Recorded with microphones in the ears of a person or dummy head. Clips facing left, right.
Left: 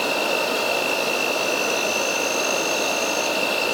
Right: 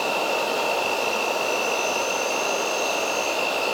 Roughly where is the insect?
Left.